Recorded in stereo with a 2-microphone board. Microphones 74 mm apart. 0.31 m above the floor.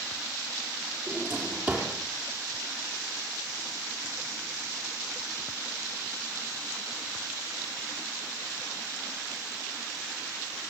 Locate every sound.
1.1 s a drawer: 25° right (ahead or behind), 5.5 m